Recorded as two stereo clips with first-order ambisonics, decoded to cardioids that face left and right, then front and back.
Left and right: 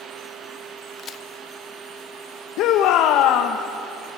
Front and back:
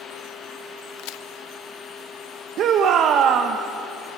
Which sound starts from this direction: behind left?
A shout, at 2.6 s.